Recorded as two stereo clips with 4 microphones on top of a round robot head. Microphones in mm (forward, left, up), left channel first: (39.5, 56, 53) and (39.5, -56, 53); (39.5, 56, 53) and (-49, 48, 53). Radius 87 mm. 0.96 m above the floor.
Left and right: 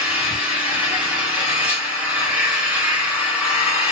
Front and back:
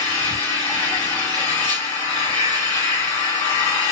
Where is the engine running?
10° right, 3 m.